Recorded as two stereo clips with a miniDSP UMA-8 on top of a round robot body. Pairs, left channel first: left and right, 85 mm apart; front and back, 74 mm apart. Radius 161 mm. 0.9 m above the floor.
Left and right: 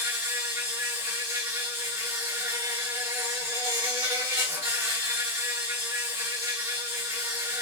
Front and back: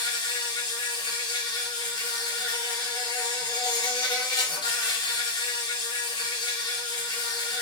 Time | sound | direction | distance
0.0 | an insect | 25° right | 1.0 m